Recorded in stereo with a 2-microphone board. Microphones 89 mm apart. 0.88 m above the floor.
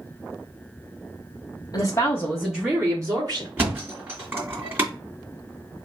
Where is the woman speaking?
50° left (ahead or behind), 1.4 m; by 3.5 s 50° right (ahead or behind), 1.9 m.